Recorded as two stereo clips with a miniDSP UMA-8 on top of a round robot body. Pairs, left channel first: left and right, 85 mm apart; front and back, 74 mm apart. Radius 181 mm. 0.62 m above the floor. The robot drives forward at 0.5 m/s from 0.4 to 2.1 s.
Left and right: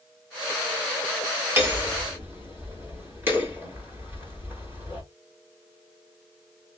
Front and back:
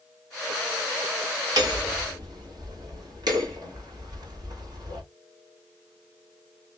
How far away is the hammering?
About 2.5 m.